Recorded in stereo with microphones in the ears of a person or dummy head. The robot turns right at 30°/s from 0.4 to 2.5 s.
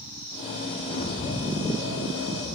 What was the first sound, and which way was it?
A bird, 55° left.